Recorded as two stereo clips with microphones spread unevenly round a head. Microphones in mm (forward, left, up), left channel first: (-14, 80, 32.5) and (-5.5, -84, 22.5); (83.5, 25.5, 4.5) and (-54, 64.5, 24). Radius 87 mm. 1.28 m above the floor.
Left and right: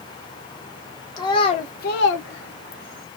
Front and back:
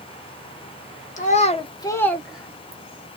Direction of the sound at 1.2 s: 20° left.